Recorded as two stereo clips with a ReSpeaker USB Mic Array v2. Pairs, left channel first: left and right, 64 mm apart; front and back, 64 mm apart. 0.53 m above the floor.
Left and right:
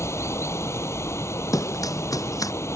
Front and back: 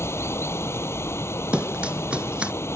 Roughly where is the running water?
Ahead left.